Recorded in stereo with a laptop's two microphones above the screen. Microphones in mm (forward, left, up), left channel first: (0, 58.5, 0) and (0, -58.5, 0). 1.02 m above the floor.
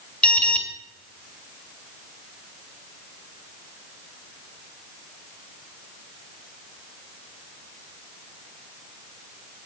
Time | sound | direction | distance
0.2 | an alarm | 10° left (ahead or behind) | 2.5 m